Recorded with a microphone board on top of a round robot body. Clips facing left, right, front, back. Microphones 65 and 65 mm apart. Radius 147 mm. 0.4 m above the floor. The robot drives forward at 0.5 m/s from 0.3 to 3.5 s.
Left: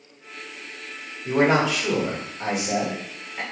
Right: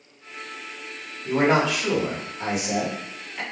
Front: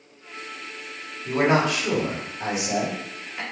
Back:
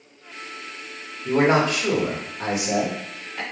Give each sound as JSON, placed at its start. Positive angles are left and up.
{"t": 1.2, "sound": "a man speaking", "azimuth_deg": 175, "distance_m": 1.5}